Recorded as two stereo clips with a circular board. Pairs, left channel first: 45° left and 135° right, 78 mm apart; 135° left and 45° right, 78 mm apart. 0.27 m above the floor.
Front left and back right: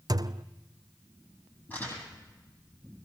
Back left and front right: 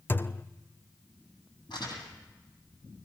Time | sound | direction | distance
0.1 | a thud | 165° right | 0.6 m
1.7 | crumpling | 110° left | 8.5 m